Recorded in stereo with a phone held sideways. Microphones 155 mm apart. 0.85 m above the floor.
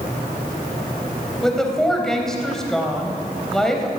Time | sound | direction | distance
1.4 | a woman speaking | 5° left (ahead or behind) | 4 m